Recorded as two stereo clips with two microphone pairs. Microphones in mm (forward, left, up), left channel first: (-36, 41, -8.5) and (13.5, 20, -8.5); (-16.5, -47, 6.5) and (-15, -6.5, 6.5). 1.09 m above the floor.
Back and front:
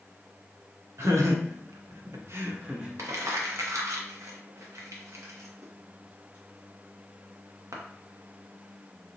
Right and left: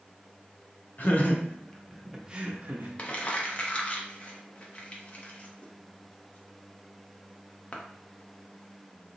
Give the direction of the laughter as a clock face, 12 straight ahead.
2 o'clock.